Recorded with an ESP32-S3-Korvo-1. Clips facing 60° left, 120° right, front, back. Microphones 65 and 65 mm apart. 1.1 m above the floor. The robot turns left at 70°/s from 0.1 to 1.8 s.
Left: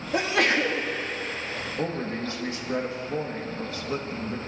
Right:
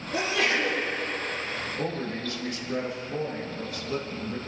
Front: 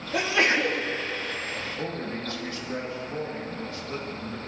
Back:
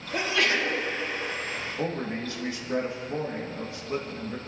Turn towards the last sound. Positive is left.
turn(degrees=115)